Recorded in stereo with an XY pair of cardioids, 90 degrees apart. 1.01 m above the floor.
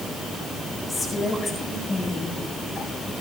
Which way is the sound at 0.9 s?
35° left.